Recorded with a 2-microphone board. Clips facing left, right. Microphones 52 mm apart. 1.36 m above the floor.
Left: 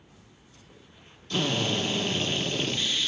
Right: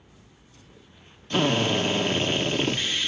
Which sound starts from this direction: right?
A drill, at 1.3 s.